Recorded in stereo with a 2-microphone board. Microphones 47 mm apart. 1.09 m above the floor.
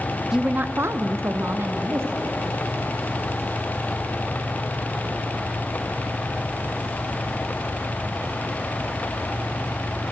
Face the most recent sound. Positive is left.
turn(degrees=-60)  # may be behind; listen again after turning